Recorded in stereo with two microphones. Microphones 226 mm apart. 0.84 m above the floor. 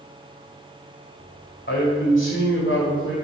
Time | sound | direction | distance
1.7 | a man speaking | 55° left (ahead or behind) | 3 m